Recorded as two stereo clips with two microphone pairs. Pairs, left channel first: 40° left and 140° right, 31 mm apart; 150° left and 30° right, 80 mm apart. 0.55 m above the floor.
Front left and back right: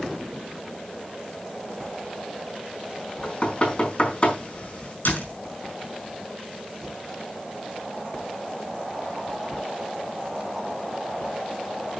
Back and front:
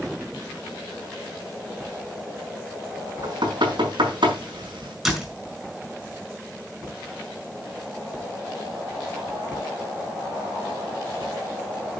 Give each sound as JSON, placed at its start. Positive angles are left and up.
{"t": 3.2, "sound": "knocking", "azimuth_deg": -15, "distance_m": 4.5}
{"t": 5.0, "sound": "a door slam", "azimuth_deg": 55, "distance_m": 5.5}